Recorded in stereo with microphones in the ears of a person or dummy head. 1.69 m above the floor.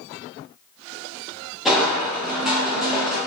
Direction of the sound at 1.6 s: 5° right (ahead or behind).